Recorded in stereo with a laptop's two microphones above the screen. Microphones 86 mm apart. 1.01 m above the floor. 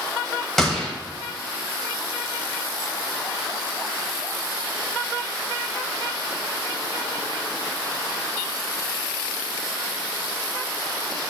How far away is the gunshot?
About 1.5 m.